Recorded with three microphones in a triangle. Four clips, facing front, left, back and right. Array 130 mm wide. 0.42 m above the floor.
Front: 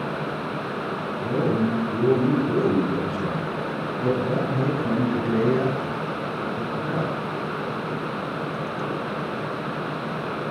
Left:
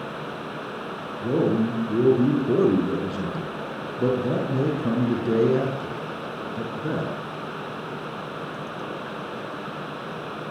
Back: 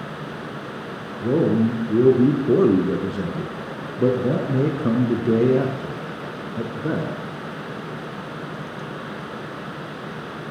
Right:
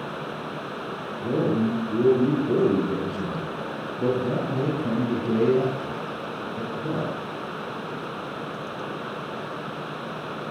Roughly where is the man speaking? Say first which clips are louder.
Left 1 dB, back 5 dB; behind.